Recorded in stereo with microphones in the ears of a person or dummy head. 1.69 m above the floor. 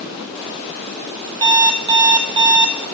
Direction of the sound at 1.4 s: 20° right (ahead or behind).